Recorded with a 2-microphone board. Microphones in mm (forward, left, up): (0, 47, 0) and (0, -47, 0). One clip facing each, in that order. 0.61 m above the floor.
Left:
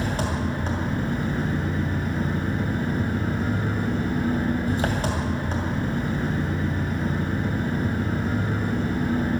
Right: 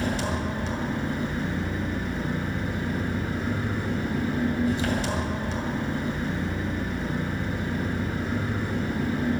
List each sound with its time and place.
0.0 s an engine running: 50° left (ahead or behind), 2.5 m